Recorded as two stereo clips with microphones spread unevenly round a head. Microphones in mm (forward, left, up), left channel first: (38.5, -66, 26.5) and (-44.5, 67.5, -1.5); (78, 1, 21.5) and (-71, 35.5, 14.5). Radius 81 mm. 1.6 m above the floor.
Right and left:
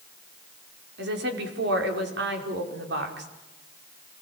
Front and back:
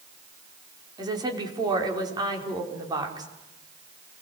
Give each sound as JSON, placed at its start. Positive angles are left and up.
{"t": 1.0, "sound": "a woman speaking", "azimuth_deg": 100, "distance_m": 5.5}